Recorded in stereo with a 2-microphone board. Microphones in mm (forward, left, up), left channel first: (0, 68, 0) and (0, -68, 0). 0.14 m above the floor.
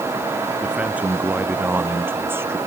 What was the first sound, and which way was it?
A man speaking, 5° right (ahead or behind).